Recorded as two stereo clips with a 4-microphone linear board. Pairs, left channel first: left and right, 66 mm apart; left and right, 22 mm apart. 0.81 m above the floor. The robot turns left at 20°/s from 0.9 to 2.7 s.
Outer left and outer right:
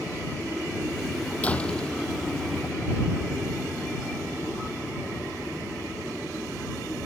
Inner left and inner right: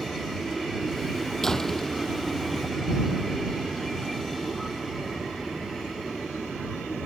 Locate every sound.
1.4 s a door slam: 20° left (ahead or behind); by 2.9 s 5° right (ahead or behind)